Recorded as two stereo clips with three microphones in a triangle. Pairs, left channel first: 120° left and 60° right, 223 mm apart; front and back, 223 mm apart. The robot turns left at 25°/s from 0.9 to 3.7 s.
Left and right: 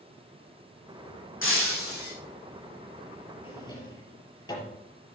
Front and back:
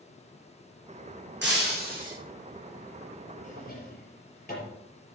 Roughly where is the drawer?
Ahead left.